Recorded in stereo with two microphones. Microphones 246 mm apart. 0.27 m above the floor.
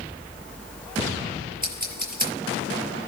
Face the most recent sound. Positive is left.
turn(degrees=-35)  # may be behind; listen again after turning